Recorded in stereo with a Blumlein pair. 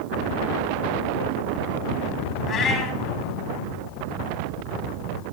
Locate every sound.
2.5 s a cat meowing: 30° left, 3 m